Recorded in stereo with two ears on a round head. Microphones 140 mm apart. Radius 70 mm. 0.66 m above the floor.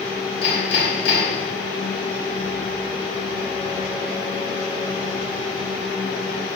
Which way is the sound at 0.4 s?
35° left (ahead or behind).